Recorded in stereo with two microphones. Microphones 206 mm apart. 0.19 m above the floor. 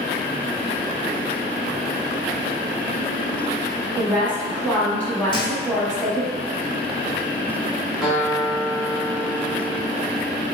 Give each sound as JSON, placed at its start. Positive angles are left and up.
{"t": 4.0, "sound": "a woman speaking", "side_deg": 5, "distance_m": 1.1}
{"t": 5.3, "sound": "a thud", "side_deg": 25, "distance_m": 1.4}
{"t": 8.0, "sound": "a guitar", "side_deg": 0, "distance_m": 1.1}